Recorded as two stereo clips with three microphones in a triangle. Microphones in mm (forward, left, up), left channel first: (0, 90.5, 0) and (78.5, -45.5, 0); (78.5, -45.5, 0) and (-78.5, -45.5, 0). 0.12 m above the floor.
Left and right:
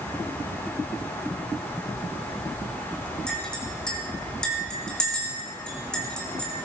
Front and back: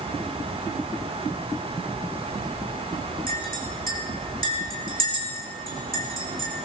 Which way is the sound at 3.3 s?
155° right.